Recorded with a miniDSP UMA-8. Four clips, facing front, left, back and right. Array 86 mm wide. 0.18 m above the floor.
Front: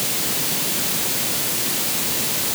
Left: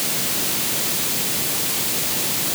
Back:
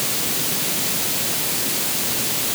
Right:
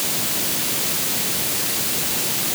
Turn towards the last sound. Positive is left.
No sound to turn to.